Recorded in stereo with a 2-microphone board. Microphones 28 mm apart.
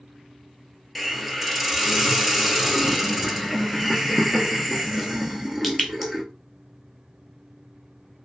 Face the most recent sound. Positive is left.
turn(degrees=-5)  # may be behind; listen again after turning